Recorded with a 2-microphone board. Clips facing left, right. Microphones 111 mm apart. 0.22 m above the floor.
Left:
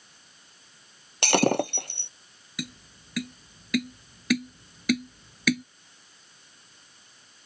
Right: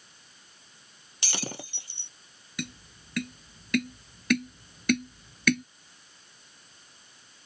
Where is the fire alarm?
No fire alarm in this recording.